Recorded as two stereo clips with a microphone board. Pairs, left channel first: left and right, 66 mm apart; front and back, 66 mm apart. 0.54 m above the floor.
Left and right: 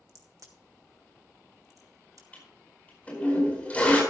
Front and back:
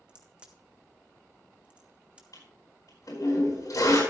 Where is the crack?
110° right, 1.6 m.